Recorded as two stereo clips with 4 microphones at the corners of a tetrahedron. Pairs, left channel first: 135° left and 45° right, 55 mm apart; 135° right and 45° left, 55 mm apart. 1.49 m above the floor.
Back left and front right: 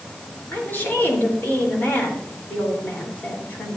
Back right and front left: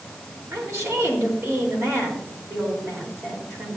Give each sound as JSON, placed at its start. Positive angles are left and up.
{"t": 0.5, "sound": "a woman speaking", "azimuth_deg": 80, "distance_m": 4.0}